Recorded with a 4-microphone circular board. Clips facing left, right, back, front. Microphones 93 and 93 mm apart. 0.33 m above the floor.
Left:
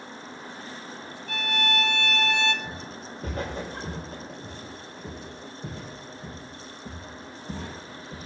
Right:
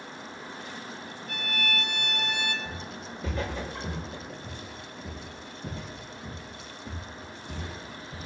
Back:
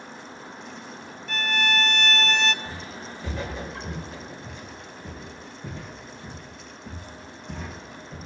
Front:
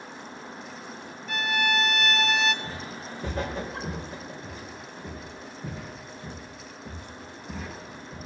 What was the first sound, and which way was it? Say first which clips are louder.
A violin: left 6 dB, even; 85° left.